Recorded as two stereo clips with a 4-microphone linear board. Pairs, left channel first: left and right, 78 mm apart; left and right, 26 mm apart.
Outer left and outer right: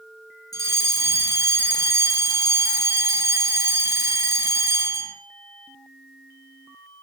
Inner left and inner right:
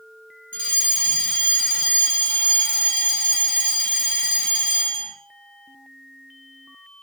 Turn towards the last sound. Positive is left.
turn(degrees=45)  # may be behind; listen again after turning